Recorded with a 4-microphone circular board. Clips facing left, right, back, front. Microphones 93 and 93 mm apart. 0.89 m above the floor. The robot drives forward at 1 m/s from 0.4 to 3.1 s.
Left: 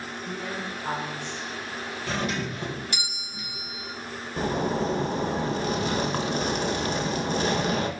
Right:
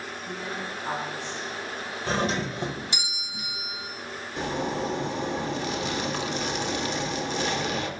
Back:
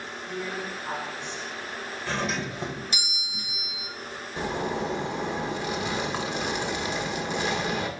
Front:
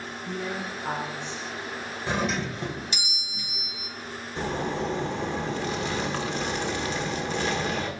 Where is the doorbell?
60° right, 0.8 m; by 3.9 s 155° right, 1.1 m.